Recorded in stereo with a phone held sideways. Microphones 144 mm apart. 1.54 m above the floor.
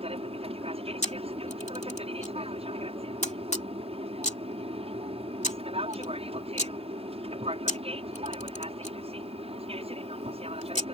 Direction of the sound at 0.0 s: 45° right (ahead or behind).